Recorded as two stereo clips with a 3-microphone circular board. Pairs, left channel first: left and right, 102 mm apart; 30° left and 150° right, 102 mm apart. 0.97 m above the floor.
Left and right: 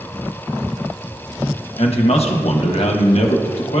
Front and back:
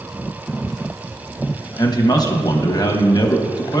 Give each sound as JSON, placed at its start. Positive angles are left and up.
{"t": 1.8, "sound": "a man speaking", "azimuth_deg": 80, "distance_m": 0.9}